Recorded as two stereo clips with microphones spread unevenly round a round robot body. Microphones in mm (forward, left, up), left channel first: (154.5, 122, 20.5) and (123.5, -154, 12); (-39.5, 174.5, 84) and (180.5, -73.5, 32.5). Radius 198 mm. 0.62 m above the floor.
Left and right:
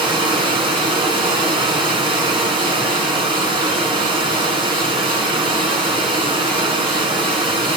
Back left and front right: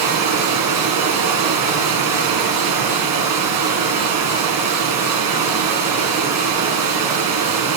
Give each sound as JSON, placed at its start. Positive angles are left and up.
{"t": 0.0, "sound": "running water", "azimuth_deg": -25, "distance_m": 3.0}